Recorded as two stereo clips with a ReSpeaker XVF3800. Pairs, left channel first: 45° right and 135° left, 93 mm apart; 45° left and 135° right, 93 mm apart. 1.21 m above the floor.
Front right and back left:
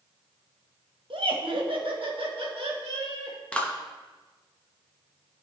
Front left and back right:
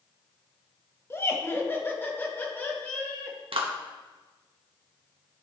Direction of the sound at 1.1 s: 110° left.